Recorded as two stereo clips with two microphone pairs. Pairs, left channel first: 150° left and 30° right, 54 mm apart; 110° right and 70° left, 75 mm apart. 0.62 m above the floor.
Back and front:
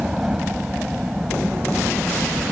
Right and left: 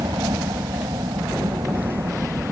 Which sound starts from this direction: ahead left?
A helicopter, at 0.0 s.